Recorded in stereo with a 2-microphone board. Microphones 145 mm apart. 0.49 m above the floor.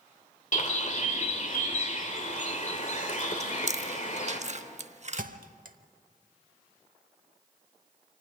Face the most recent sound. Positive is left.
turn(degrees=-70)  # may be behind; listen again after turning